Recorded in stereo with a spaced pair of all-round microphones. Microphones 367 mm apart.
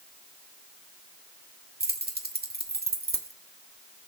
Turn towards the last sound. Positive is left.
turn(degrees=-25)  # may be behind; listen again after turning